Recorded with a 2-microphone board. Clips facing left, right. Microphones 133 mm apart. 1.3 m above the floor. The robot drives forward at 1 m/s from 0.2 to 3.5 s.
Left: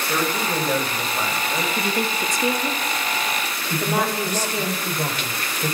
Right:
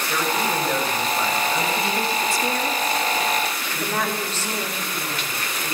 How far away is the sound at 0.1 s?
About 7.5 m.